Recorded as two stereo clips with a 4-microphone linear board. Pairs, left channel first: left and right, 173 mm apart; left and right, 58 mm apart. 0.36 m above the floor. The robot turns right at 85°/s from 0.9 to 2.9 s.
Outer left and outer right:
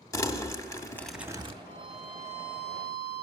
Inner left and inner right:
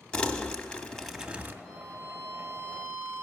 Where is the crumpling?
160° left, 0.6 m; by 1.5 s 145° right, 0.6 m.